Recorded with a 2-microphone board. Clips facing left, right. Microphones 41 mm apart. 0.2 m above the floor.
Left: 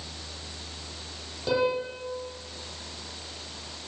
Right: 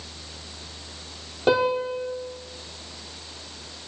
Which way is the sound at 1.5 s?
50° right (ahead or behind).